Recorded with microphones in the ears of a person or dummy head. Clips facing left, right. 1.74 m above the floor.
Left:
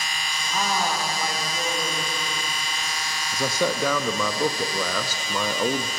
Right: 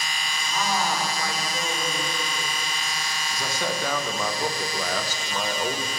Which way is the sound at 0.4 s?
20° left (ahead or behind).